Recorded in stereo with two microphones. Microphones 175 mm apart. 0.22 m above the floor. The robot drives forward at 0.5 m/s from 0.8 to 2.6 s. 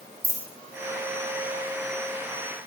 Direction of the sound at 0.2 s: 15° right (ahead or behind).